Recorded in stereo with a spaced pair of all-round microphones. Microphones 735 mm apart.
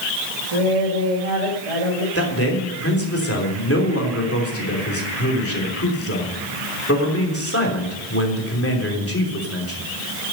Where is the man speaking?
20° left (ahead or behind), 3 m.